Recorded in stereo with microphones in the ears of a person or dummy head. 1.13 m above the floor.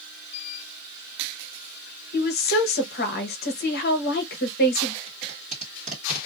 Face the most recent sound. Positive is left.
turn(degrees=-40)  # may be behind; listen again after turning